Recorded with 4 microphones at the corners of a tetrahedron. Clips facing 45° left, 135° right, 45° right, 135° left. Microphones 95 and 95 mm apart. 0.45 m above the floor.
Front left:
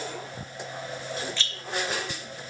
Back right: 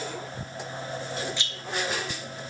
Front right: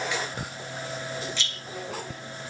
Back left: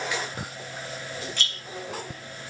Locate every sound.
1.4 s a rattle: 155° left, 2.5 m